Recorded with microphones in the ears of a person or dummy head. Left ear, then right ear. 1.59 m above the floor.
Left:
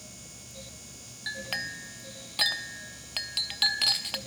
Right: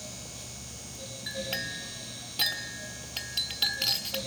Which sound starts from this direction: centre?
A clink, at 1.3 s.